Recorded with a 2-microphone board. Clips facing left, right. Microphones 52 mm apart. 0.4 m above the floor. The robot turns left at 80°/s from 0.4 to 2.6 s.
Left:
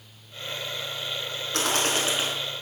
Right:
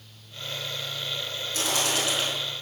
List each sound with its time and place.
1.5 s a bird: 70° left, 4 m; by 2.3 s 5° left, 4 m